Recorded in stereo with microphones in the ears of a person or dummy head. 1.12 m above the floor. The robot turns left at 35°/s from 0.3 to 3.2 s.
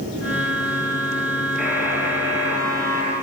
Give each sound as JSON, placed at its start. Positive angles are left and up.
{"t": 1.6, "sound": "a buzzer", "azimuth_deg": -10, "distance_m": 7.0}